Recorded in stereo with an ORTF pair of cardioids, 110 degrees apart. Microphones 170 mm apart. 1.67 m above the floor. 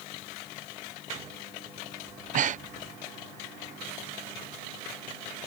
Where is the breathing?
50° right.